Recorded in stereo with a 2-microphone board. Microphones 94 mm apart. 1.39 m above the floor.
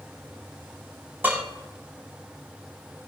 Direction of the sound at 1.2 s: 20° right (ahead or behind).